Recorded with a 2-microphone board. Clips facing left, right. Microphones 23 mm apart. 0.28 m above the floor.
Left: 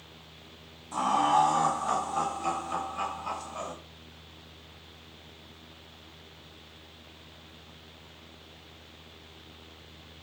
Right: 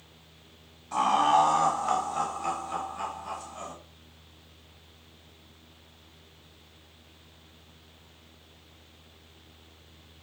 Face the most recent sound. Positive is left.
turn(degrees=40)  # may be behind; listen again after turning